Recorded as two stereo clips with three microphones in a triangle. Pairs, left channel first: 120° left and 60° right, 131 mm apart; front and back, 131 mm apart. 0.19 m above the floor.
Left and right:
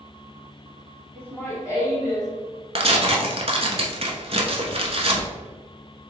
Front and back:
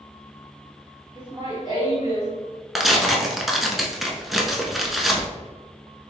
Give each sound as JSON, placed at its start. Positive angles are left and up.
{"t": 1.1, "sound": "laughter", "azimuth_deg": -170, "distance_m": 2.0}
{"t": 2.8, "sound": "tearing paper", "azimuth_deg": -90, "distance_m": 0.9}